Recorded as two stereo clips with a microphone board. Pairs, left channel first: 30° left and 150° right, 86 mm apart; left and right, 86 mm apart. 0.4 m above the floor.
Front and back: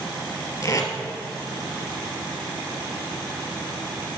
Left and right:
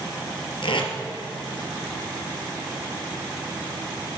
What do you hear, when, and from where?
0.6 s tape being pulled: 80° left, 2 m